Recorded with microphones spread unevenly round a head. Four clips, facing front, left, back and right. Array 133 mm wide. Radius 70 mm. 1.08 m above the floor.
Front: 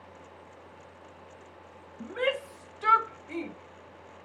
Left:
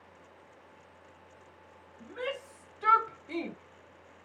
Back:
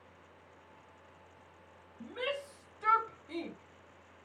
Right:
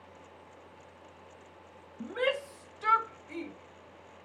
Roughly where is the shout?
Ahead right.